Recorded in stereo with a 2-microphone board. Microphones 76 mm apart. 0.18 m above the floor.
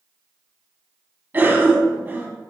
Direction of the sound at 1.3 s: 25° right (ahead or behind).